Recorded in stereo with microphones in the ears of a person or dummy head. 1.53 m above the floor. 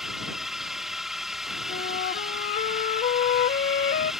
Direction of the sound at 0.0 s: 5° right (ahead or behind).